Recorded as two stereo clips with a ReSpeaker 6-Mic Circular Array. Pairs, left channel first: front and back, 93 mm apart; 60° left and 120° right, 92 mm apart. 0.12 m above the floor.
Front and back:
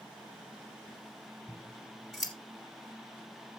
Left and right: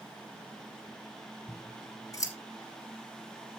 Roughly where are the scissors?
Left.